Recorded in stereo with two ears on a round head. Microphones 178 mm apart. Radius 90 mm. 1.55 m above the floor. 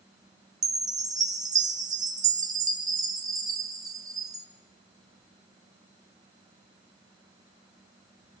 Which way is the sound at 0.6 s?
20° right (ahead or behind).